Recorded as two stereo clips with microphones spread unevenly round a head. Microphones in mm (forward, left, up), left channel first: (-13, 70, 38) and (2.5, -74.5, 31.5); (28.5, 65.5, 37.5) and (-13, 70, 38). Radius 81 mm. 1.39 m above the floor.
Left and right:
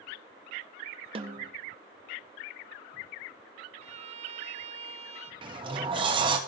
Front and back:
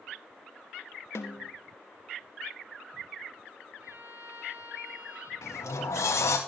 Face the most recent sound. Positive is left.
turn(degrees=-25)